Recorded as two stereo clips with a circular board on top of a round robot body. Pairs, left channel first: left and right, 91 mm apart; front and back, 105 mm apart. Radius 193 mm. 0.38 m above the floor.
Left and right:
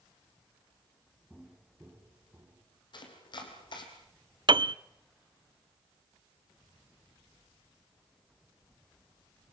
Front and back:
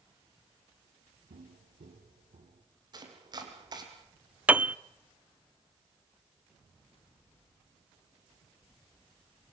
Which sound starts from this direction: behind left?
Chopping, at 2.9 s.